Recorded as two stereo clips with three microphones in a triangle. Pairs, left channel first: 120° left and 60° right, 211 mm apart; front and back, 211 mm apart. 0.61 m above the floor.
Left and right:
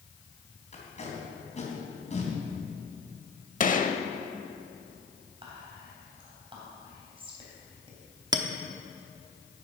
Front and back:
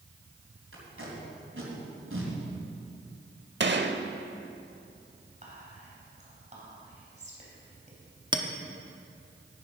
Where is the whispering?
125° right, 3.5 m.